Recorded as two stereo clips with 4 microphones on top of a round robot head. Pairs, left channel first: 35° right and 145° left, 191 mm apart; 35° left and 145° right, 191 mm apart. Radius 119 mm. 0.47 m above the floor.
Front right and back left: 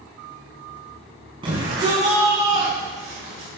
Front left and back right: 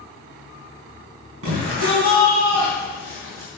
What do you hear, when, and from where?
1.4 s a shout: 150° right, 4.5 m; by 3.5 s 140° right, 5.5 m